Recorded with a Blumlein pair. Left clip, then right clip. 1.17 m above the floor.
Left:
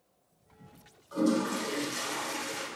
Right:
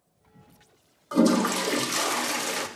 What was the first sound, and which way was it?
A toilet flushing, 35° right.